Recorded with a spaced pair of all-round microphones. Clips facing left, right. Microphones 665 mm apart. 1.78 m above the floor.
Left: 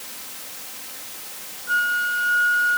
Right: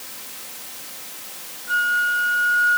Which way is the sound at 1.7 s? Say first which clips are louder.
Right 2 dB; 15° left (ahead or behind).